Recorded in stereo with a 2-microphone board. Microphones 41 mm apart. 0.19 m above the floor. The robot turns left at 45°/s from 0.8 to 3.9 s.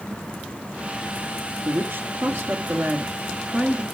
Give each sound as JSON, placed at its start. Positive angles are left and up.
{"t": 1.6, "sound": "a woman speaking", "azimuth_deg": -65, "distance_m": 3.0}